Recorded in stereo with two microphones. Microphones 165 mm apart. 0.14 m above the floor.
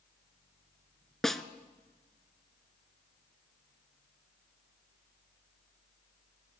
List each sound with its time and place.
1.2 s a snare drum: centre (ahead or behind), 0.7 m